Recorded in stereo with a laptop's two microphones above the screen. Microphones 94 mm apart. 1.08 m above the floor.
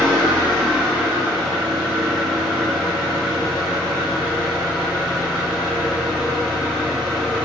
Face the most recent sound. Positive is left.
turn(degrees=-10)  # may be behind; listen again after turning